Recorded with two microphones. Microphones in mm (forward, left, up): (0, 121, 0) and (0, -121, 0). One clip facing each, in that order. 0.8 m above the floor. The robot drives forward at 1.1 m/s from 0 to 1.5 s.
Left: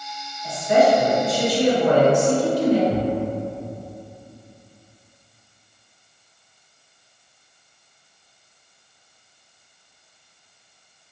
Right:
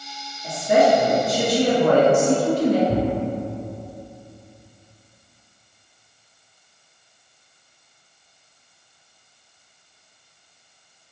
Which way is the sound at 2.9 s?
45° right (ahead or behind).